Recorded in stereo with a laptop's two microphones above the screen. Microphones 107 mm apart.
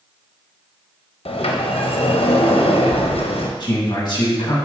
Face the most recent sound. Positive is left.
turn(degrees=45)  # may be behind; listen again after turning